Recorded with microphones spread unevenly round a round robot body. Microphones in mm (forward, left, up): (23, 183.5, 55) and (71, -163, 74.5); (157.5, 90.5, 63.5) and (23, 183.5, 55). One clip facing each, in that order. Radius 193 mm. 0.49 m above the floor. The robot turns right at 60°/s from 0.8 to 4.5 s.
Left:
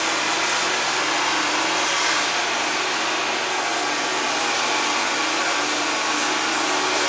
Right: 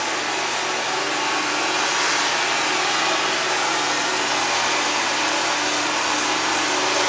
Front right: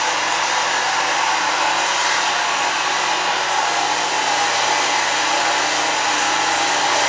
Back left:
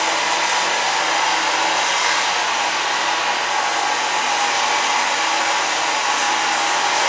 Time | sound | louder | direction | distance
0.0 | running water | even, even | 125° left | 1.1 m